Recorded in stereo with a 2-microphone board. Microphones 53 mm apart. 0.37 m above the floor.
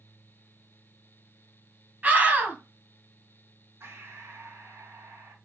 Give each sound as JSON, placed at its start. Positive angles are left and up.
{"t": 2.0, "sound": "a scream", "side_deg": -30, "distance_m": 2.5}
{"t": 3.8, "sound": "breathing", "side_deg": -50, "distance_m": 2.5}